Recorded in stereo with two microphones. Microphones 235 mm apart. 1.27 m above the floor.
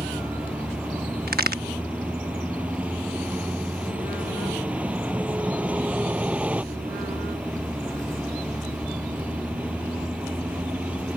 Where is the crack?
45° right (ahead or behind).